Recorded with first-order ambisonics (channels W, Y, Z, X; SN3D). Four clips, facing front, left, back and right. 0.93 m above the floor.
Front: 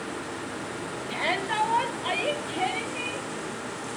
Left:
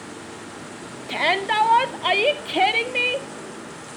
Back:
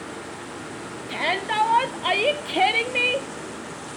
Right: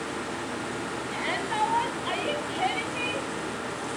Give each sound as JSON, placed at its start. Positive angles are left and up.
{"t": 1.1, "sound": "a shout", "azimuth_deg": 100, "distance_m": 1.7}